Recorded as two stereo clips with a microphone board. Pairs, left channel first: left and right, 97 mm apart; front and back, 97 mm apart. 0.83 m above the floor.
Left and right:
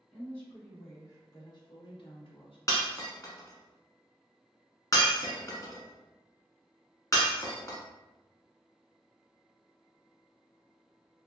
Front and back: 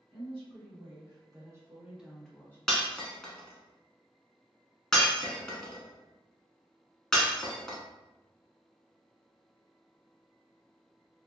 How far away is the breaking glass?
About 0.8 m.